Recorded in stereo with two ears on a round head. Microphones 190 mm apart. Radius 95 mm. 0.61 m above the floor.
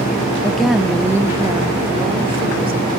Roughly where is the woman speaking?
Centre.